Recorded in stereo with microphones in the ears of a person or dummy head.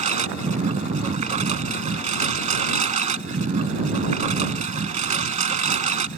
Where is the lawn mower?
40° right (ahead or behind).